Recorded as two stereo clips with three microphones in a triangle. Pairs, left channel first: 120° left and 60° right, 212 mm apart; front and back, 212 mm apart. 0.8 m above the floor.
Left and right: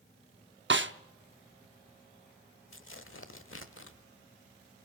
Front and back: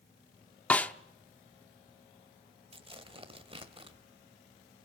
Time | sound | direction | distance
0.7 | a snare drum | 85° right | 0.8 m
2.7 | tearing paper | 120° left | 1.2 m